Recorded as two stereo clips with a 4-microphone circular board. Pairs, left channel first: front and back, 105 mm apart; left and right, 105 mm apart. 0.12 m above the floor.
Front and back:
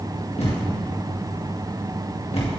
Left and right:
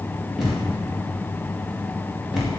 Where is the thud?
5° right, 6.5 m.